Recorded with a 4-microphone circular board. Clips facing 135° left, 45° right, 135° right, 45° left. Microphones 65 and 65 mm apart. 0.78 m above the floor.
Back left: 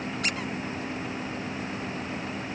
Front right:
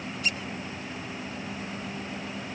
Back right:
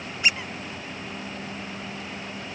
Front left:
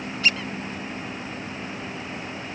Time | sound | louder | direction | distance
0.2 | a squeak | even, front left 1 dB | 155° left | ?